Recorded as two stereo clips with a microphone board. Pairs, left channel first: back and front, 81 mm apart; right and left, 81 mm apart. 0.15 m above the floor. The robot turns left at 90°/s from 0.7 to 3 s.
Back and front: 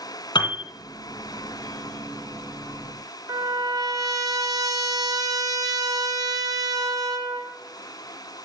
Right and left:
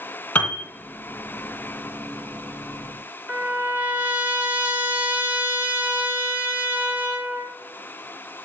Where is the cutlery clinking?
I don't hear cutlery clinking.